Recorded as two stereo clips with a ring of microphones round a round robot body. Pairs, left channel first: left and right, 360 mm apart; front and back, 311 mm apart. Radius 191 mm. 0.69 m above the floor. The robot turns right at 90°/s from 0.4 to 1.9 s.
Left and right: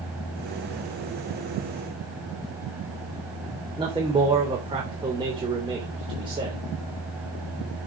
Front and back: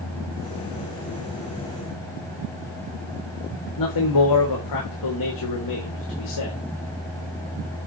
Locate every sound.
3.8 s a man speaking: 15° right, 3.5 m